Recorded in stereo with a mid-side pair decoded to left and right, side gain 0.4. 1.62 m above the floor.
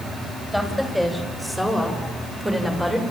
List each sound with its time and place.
0.5 s a woman speaking: straight ahead, 8.5 m; by 3.0 s 15° right, 6.5 m